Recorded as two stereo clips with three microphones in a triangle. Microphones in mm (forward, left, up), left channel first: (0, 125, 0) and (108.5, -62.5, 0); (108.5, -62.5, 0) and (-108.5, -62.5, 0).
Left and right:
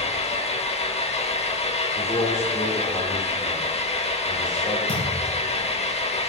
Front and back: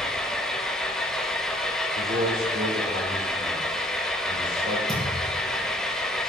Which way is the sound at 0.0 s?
85° left.